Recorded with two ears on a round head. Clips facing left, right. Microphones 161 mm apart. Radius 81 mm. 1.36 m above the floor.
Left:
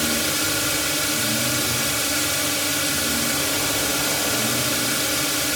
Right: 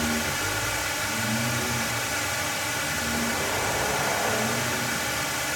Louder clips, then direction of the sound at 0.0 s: Left 3 dB; 45° left (ahead or behind).